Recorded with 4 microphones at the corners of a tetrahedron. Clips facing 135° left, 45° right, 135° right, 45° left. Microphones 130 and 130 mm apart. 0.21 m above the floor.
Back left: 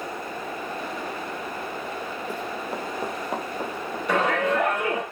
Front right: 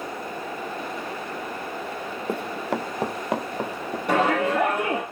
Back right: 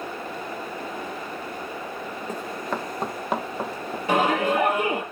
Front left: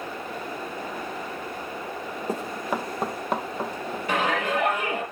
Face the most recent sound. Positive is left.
turn(degrees=-75)